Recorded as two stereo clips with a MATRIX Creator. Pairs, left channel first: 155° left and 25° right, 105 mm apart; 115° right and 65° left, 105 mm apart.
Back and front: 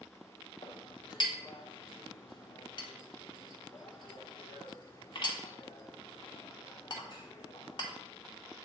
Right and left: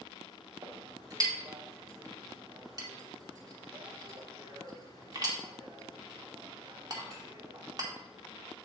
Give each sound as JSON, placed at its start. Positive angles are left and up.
{"t": 0.6, "sound": "a clink", "azimuth_deg": 120, "distance_m": 1.2}